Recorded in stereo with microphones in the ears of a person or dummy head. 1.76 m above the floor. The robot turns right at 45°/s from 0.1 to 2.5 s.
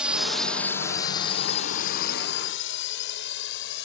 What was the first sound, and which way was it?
A drone, centre (ahead or behind).